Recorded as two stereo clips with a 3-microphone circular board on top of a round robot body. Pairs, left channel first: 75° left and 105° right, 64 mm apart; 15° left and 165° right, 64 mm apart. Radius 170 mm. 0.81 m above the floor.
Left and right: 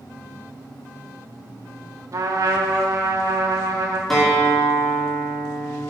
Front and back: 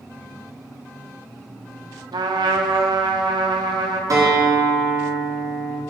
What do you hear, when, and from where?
2.1 s a trumpet: 150° right, 0.7 m
4.1 s a guitar: 160° left, 2.5 m